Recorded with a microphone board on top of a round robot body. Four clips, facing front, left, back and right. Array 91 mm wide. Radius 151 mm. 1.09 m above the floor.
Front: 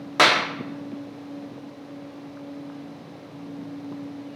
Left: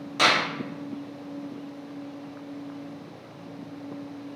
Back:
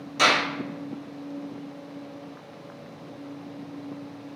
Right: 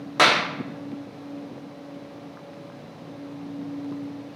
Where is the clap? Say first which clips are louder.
Right 3 dB, front 3 dB; 35° right, 0.7 m.